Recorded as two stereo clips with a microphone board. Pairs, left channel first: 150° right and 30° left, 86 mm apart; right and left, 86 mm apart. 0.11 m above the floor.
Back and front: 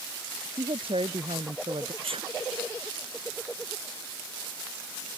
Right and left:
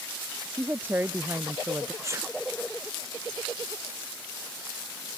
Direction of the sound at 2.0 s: 30° left.